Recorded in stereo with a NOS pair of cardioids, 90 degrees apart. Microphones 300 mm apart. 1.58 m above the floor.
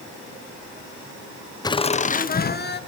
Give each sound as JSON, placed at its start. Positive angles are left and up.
{"t": 1.6, "sound": "laughter", "azimuth_deg": 10, "distance_m": 0.8}